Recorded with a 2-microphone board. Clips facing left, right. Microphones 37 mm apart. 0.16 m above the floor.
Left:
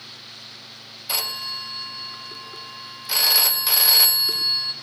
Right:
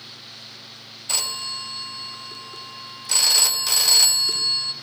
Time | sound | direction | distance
1.1 | a phone ringing | 10° left (ahead or behind) | 0.7 m